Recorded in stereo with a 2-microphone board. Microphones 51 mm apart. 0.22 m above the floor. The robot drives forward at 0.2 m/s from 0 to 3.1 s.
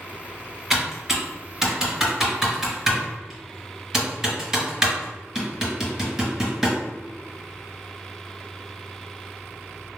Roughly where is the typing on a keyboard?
Centre.